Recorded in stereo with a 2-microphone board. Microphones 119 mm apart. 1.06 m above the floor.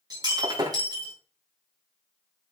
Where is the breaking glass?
35° right (ahead or behind), 3 m.